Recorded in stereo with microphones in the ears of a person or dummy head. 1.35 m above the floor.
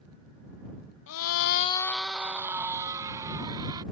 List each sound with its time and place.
1.1 s a scream: 65° left (ahead or behind); by 3.8 s 20° right (ahead or behind)